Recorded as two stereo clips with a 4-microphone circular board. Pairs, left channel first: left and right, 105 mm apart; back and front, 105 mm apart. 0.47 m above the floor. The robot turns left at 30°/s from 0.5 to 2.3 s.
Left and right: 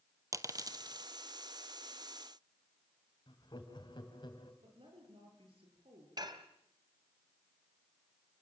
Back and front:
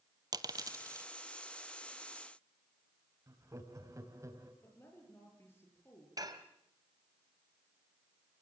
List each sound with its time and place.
0.3 s a dropped coin: 40° right, 0.8 m; by 1.1 s 55° right, 0.8 m
3.3 s laughter: 55° left, 3.5 m
4.6 s a woman speaking: 115° right, 9 m
6.2 s dishes clattering: 45° right, 1.8 m